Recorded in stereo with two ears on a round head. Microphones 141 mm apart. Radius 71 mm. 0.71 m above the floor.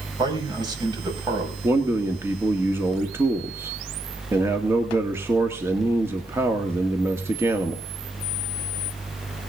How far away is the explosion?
I don't hear an explosion.